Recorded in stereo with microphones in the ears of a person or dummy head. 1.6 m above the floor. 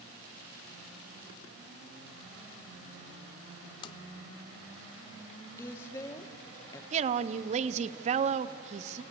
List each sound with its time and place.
3.8 s tapping: 25° left (ahead or behind), 0.8 m
5.6 s a woman speaking: 15° left (ahead or behind), 1.2 m
6.9 s a woman speaking: 35° right (ahead or behind), 0.7 m